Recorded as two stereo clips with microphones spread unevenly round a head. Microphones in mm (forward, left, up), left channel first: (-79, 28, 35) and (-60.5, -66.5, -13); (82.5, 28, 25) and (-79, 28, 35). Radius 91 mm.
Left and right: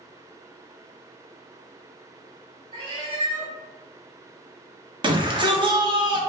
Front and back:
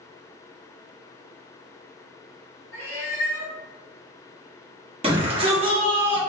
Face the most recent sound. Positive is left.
turn(degrees=-120)